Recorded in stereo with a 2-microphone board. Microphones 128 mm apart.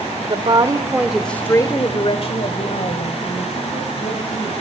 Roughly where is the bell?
I don't hear a bell.